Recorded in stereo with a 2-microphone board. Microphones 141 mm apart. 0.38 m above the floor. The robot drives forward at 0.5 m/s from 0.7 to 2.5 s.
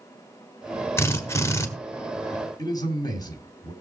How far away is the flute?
I don't hear a flute.